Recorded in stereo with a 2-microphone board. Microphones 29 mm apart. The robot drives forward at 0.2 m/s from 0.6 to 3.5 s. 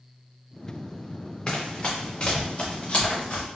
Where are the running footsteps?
30° left (ahead or behind), 1.4 m; by 3.5 s 40° left (ahead or behind), 2.5 m.